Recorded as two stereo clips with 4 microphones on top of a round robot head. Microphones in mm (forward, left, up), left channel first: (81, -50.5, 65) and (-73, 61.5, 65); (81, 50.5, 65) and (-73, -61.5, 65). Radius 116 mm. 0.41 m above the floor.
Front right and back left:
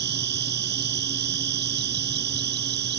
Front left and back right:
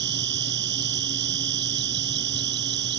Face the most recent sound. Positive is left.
turn(degrees=180)